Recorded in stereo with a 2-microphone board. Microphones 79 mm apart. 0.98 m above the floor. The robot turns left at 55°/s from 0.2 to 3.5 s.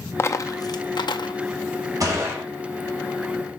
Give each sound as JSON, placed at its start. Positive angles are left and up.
{"t": 0.2, "sound": "a dropped coin", "side_deg": 30, "distance_m": 0.5}
{"t": 2.0, "sound": "a gunshot", "side_deg": -45, "distance_m": 1.9}